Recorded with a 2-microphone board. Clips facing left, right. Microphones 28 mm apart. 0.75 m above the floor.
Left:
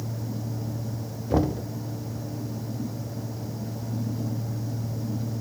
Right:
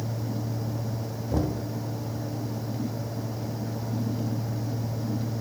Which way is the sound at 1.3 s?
35° left (ahead or behind).